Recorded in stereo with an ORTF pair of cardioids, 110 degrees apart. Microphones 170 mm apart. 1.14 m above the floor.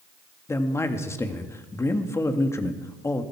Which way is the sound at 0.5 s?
15° left.